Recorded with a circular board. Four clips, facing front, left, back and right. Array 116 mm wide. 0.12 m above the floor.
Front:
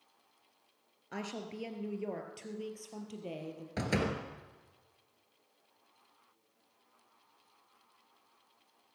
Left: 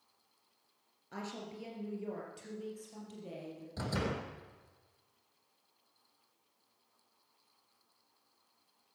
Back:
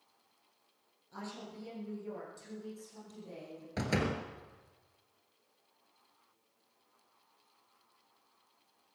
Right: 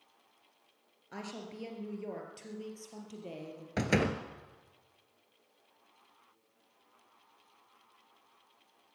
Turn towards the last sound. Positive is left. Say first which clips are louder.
# right 7 dB, even
turn(degrees=-85)